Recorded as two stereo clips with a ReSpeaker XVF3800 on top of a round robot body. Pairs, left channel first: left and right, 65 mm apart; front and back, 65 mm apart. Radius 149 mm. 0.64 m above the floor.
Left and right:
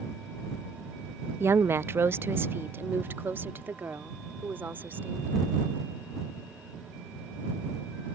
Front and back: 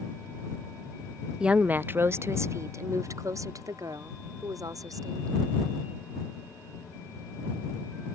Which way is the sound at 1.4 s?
110° right.